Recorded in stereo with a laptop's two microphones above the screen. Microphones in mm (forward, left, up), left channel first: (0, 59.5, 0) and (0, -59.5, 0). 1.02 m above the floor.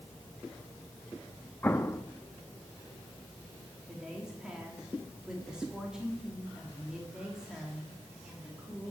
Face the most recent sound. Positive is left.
turn(degrees=-5)  # may be behind; listen again after turning